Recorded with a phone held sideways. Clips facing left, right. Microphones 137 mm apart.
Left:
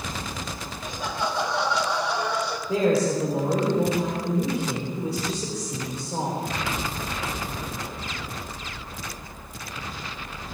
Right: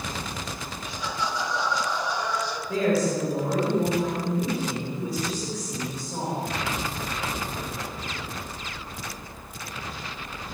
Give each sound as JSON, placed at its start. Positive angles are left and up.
{"t": 0.8, "sound": "laughter", "side_deg": 45, "distance_m": 2.0}
{"t": 2.7, "sound": "a woman speaking", "side_deg": 30, "distance_m": 4.5}